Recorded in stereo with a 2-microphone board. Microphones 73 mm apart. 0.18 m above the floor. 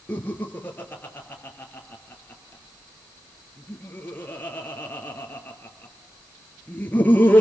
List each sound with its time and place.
0.1 s laughter: 25° left (ahead or behind), 2.5 m